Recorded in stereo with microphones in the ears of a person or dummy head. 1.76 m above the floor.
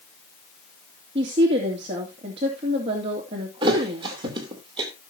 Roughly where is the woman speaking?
Right.